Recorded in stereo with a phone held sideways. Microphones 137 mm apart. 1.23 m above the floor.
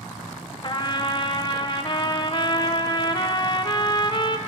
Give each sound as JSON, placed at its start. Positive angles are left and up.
{"t": 0.6, "sound": "a trumpet", "side_deg": 35, "distance_m": 0.6}